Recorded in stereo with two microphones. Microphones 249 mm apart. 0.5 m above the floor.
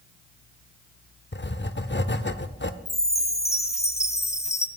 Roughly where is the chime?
Centre.